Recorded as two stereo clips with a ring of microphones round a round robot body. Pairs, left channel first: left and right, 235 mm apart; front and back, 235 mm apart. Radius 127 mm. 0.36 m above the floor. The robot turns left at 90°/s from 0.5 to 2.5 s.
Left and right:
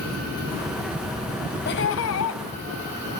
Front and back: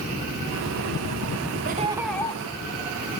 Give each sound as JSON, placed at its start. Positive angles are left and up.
{"t": 1.6, "sound": "laughter", "azimuth_deg": 130, "distance_m": 2.5}